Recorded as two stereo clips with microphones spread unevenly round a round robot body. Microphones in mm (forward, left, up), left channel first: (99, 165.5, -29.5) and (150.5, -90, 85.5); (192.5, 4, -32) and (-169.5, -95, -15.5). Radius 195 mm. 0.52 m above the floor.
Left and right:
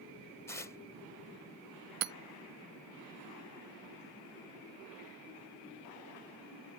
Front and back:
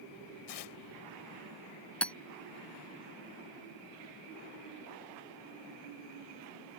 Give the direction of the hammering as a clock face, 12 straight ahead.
2 o'clock.